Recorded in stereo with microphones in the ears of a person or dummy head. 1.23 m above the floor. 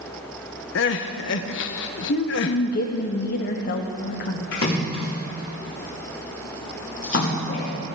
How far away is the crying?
About 0.8 m.